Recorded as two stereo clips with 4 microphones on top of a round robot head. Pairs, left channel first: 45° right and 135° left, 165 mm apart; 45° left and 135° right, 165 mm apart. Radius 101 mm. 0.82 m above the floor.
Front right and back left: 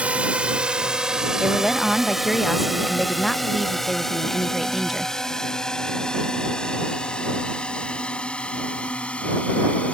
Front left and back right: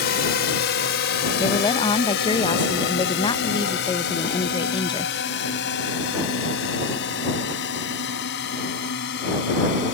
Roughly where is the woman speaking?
Ahead left.